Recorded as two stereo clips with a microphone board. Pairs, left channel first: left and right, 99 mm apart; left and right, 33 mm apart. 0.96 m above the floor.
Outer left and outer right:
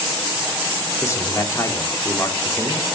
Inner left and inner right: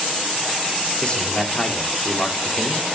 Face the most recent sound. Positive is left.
turn(degrees=30)  # may be behind; listen again after turning